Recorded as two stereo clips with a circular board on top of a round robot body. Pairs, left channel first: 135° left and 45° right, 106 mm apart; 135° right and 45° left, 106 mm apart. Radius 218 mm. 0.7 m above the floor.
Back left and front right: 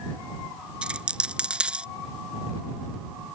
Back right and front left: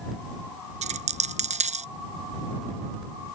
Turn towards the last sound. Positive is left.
turn(degrees=35)